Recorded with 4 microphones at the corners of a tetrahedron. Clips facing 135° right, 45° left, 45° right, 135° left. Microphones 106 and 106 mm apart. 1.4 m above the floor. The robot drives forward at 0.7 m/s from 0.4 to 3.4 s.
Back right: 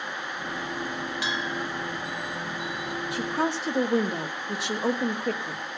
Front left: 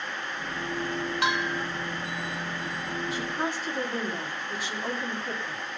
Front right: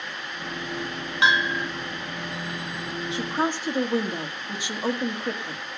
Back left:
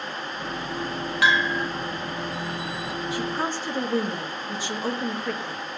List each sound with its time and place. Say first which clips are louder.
1.2 s a bell: front left 4 dB, even; 20° left, 1.1 m; by 1.7 s 30° left, 0.8 m
3.1 s a woman speaking: back right 6 dB, front right 3 dB; 110° right, 1.7 m; by 5.6 s 120° right, 1.7 m